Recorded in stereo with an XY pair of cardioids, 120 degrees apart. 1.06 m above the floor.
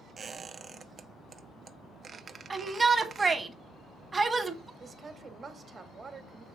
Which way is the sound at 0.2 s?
40° right.